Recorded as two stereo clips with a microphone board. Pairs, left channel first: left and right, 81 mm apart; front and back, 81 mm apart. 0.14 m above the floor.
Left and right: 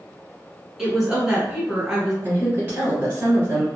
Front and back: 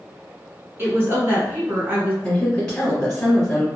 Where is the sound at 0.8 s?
165° right, 1.2 m.